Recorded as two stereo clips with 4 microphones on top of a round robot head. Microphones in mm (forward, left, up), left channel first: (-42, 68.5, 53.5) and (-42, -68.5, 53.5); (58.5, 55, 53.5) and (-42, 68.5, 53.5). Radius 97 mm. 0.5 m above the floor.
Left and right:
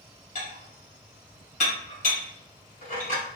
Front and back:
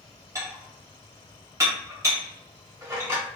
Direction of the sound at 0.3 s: 110° left.